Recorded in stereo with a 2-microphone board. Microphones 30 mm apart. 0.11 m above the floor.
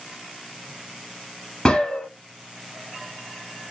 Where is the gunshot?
30° left (ahead or behind), 1.7 m.